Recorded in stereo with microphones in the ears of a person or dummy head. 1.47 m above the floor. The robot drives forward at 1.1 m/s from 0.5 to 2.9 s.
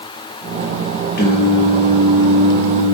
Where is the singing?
50° left (ahead or behind), 0.6 m; by 2.9 s 10° left (ahead or behind), 2.5 m.